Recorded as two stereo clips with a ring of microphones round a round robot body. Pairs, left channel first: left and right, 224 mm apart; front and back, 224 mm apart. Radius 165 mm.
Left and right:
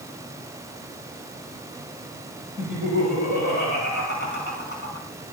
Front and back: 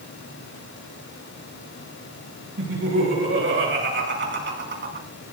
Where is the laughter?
150° left, 7 m; by 5.1 s 140° left, 5.5 m.